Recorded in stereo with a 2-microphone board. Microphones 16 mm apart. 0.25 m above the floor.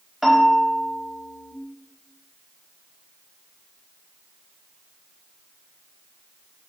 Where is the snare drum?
No snare drum in this recording.